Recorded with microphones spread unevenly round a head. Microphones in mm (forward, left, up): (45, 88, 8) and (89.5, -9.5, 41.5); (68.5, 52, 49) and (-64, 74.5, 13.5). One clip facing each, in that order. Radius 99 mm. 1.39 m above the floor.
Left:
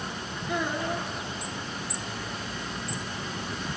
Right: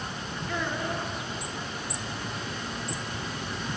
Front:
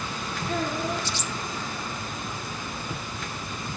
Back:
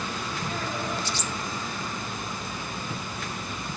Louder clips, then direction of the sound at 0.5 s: Left 2 dB, front 6 dB; 35° left.